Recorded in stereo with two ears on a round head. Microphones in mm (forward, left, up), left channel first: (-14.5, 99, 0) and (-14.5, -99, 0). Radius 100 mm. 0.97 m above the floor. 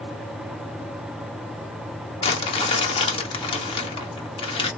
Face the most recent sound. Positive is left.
turn(degrees=25)  # may be behind; listen again after turning